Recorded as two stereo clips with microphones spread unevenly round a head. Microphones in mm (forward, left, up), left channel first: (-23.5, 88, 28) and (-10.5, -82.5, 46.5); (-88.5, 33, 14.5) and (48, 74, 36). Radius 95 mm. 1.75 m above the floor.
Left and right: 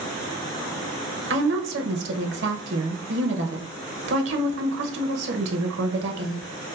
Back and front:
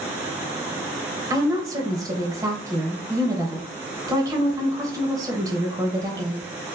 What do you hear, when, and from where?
1.3 s a woman speaking: 55° right, 0.8 m